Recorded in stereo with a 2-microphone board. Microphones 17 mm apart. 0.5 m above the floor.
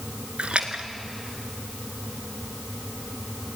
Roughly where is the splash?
Right.